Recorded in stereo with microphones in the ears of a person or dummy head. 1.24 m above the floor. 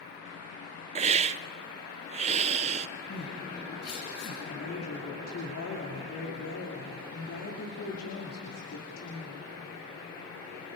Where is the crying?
55° left (ahead or behind), 5.5 m.